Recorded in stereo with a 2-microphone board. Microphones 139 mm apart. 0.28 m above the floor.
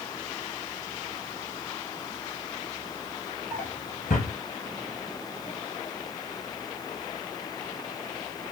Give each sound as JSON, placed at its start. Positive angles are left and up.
{"t": 3.5, "sound": "a drawer", "side_deg": 80, "distance_m": 3.0}